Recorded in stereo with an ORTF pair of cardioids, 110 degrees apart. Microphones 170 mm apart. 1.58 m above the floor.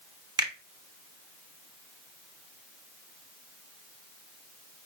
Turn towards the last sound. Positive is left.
turn(degrees=-25)